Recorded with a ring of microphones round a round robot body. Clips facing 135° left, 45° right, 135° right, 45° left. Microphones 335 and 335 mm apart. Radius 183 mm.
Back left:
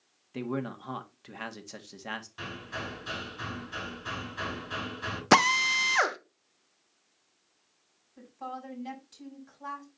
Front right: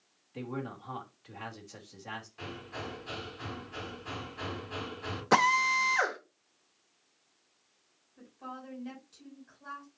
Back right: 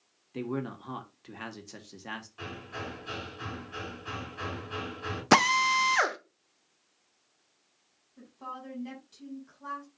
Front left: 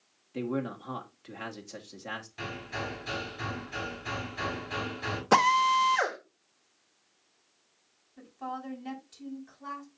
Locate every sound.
0.3 s a man speaking: 145° left, 1.8 m
2.4 s hammering: 95° left, 6 m
5.3 s a drill: 175° left, 0.9 m
8.2 s a woman speaking: 130° left, 6.5 m